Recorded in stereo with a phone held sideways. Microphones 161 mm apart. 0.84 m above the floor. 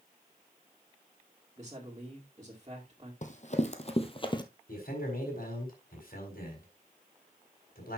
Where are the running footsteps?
50° left (ahead or behind), 1.6 m; by 4.4 s 30° left (ahead or behind), 1.1 m.